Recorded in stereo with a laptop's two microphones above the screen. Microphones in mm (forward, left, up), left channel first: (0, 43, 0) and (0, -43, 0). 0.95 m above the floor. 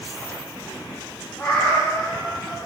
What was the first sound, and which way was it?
A cat meowing, 10° left (ahead or behind).